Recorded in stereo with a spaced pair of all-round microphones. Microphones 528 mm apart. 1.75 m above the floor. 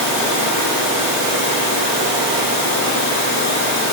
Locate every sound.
Only background noise.